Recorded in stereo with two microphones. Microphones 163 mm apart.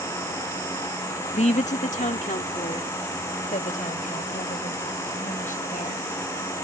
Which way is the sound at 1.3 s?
45° left (ahead or behind).